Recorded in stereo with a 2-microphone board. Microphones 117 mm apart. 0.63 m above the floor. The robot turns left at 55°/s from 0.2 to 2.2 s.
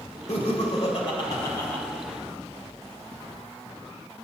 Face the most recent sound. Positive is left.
turn(degrees=-15)